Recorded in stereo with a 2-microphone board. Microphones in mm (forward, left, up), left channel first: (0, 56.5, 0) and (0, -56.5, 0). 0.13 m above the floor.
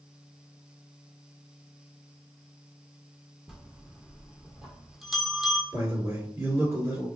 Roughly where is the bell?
Centre.